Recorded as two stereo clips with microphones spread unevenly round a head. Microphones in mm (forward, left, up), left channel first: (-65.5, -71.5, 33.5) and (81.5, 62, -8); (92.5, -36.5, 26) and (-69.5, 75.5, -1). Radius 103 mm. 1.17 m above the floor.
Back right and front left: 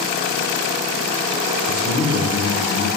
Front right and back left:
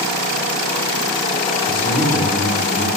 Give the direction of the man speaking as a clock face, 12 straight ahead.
3 o'clock.